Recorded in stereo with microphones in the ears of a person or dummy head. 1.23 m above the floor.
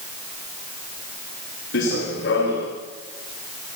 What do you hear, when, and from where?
1.7 s running footsteps: 65° left (ahead or behind), 6.5 m